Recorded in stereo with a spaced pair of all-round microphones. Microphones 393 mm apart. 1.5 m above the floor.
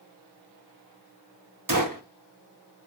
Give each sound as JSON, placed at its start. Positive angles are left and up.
{"t": 1.7, "sound": "a gunshot", "side_deg": -50, "distance_m": 1.5}